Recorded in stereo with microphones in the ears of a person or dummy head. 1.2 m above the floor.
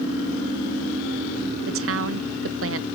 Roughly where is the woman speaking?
Right.